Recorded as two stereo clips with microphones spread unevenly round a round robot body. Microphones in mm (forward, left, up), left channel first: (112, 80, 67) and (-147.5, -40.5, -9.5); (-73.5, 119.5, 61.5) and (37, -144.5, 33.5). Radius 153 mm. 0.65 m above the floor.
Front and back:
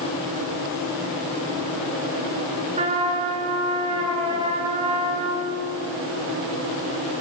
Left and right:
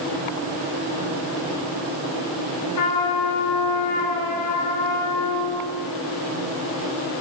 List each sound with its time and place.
2.8 s a trumpet: 135° left, 5 m